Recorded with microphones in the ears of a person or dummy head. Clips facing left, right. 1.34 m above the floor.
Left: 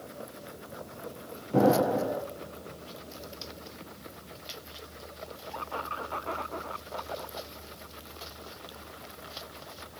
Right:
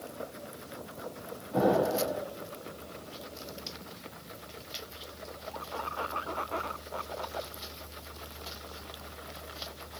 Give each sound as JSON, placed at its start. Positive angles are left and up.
{"t": 1.5, "sound": "an explosion", "side_deg": 50, "distance_m": 1.4}